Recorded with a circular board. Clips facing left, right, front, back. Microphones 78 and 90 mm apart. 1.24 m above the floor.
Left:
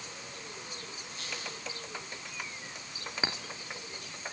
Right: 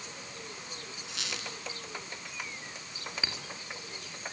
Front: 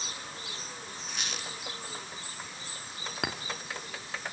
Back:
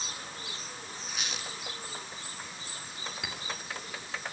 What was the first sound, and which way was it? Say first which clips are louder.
A squeak: right 2 dB, even; 90° right.